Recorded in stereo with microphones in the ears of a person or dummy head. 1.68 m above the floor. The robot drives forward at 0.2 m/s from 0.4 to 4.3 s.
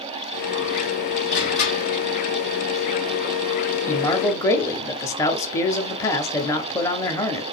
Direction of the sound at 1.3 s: 60° left (ahead or behind).